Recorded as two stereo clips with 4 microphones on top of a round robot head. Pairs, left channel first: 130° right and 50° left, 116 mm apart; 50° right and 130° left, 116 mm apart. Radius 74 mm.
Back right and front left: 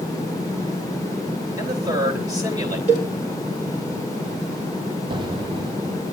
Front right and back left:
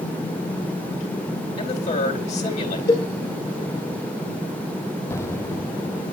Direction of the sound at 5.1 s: 15° left.